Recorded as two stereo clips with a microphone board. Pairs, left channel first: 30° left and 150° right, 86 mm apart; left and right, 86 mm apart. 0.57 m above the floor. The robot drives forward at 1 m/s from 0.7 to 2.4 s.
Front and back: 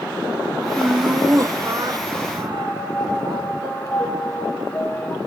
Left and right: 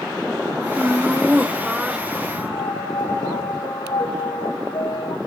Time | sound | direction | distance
0.8 | laughter | 100° right | 1.0 m
2.5 | a piano | 95° left | 1.8 m